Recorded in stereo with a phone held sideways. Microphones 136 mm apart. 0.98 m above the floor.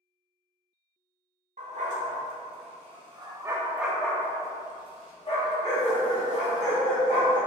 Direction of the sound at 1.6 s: 65° right (ahead or behind).